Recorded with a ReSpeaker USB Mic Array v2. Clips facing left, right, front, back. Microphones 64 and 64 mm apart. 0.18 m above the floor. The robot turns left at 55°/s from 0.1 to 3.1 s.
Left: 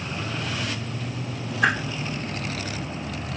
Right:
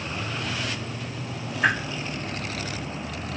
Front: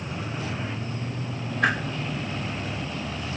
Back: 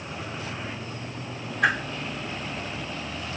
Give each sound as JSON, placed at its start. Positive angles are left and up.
{"t": 1.6, "sound": "a whoosh", "azimuth_deg": 90, "distance_m": 2.0}